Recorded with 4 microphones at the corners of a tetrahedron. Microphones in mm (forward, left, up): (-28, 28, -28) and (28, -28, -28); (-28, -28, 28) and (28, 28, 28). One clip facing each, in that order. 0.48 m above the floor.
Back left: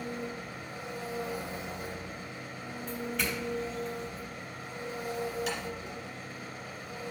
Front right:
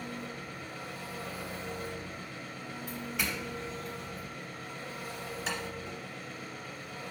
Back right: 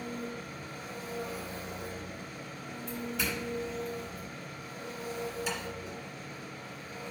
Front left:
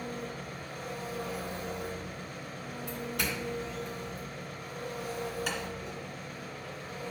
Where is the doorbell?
40° left, 4 m.